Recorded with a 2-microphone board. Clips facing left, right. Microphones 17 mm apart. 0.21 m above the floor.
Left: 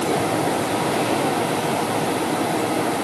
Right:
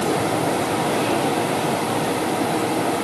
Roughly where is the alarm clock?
I don't hear an alarm clock.